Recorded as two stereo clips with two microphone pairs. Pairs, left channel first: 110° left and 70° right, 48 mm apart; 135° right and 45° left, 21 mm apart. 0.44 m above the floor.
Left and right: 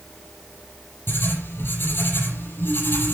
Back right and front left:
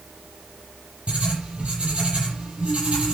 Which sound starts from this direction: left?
Writing, at 1.1 s.